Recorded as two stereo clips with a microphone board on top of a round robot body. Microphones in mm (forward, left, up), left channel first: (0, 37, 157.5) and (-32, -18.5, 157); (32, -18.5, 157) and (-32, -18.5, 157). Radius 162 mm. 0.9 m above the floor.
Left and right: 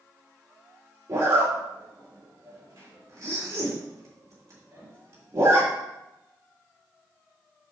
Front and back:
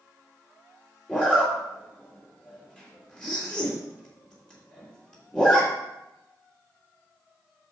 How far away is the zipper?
About 3.5 m.